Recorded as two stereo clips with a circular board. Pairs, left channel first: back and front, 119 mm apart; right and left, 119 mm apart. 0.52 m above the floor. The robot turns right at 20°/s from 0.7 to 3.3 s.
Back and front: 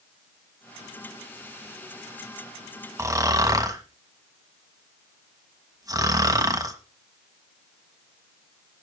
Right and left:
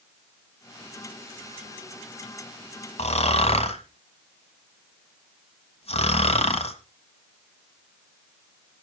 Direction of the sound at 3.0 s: 65° right.